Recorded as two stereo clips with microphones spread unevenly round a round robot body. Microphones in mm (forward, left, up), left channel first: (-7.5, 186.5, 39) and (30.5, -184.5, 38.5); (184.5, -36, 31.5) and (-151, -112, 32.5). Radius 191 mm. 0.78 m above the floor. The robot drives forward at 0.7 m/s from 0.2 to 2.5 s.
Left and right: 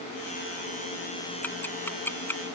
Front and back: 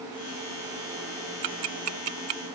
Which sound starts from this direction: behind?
Ticking, at 1.4 s.